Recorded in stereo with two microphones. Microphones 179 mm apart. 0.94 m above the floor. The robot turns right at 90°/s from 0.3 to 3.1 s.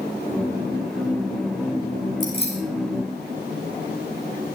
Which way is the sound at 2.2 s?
50° left (ahead or behind).